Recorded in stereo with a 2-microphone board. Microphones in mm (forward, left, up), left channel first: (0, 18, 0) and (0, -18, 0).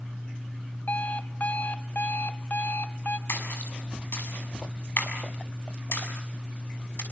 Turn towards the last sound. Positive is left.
turn(degrees=75)  # may be behind; listen again after turning